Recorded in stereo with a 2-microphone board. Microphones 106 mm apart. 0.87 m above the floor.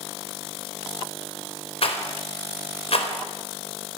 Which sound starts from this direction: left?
A rattle, at 1.8 s.